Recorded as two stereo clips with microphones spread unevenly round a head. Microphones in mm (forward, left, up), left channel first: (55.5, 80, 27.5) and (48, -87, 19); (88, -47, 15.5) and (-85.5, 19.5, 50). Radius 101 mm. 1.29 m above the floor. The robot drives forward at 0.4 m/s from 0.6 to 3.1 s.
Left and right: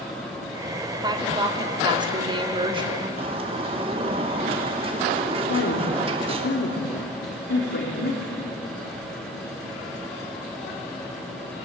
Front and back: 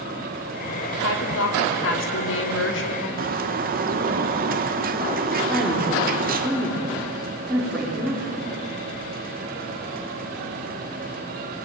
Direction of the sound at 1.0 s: 25° right.